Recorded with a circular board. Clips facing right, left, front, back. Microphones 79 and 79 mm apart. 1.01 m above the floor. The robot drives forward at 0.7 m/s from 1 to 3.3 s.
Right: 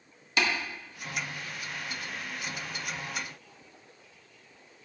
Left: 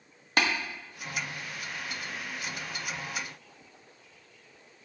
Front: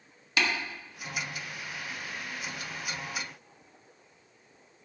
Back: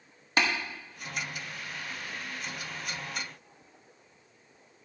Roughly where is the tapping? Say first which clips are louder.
Left 1 dB, back 1 dB; behind left.